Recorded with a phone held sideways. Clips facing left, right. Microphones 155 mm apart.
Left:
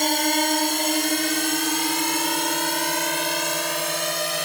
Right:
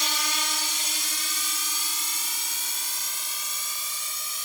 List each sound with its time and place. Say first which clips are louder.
0.0 s a drone: left 13 dB; 60° left (ahead or behind); by 4.5 s 80° left